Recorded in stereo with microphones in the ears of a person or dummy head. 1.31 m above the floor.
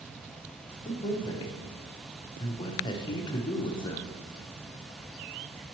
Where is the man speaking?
25° left (ahead or behind), 0.7 m.